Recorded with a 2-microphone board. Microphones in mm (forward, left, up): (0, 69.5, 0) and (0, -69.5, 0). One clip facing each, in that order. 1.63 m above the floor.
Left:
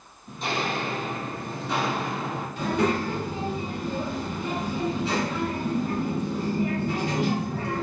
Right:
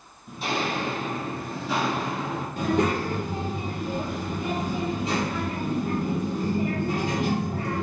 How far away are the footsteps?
About 1.9 m.